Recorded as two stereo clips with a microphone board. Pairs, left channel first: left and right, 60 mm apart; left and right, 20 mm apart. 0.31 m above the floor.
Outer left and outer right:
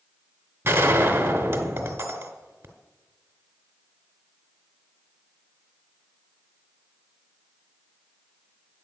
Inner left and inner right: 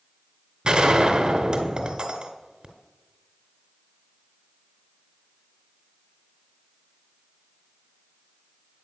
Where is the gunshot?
45° right (ahead or behind), 1.2 m.